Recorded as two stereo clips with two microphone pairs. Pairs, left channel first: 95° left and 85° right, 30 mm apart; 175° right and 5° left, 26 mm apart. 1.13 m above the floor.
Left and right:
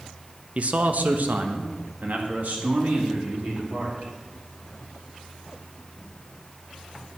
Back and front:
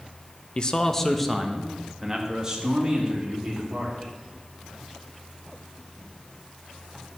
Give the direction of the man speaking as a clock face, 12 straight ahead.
4 o'clock.